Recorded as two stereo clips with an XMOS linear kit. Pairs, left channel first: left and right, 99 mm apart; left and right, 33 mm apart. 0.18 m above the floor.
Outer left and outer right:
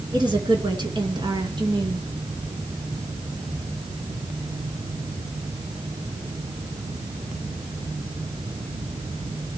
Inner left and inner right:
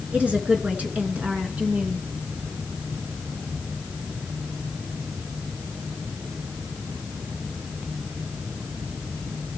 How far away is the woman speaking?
About 2.5 m.